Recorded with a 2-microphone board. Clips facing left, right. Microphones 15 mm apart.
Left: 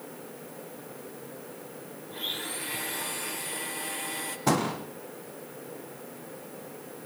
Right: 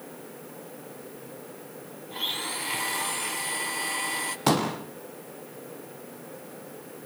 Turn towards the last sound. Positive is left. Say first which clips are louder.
# right 2 dB
turn(degrees=-75)  # may be behind; listen again after turning